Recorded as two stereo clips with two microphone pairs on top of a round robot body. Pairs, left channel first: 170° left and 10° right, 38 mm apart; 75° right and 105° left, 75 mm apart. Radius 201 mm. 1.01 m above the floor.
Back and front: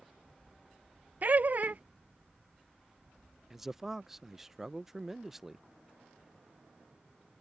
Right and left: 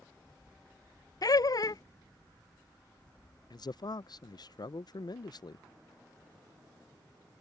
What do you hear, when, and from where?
1.2 s laughter: 50° right
3.5 s a man speaking: 90° right